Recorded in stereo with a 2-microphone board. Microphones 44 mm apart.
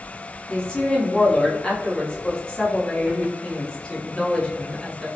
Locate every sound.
0.5 s a woman speaking: 25° left (ahead or behind), 0.9 m